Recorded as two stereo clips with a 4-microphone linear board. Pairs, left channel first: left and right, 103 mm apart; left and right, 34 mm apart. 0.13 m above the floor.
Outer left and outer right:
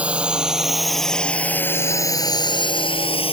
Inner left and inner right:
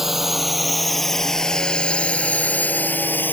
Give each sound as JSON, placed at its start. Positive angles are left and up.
{"t": 0.0, "sound": "a drone", "side_deg": -10}